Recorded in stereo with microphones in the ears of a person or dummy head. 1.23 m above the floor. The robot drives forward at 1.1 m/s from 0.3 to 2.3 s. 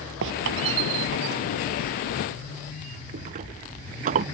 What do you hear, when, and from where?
0.2 s a squeak: 65° right (ahead or behind); by 4.2 s 40° right (ahead or behind)